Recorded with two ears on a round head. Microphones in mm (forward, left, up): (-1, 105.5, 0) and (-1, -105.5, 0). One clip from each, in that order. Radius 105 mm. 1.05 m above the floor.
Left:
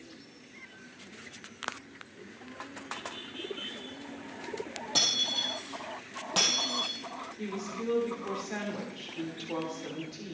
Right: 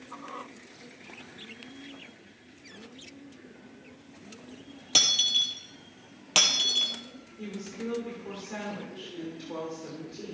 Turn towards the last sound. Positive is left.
turn(degrees=15)  # may be behind; listen again after turning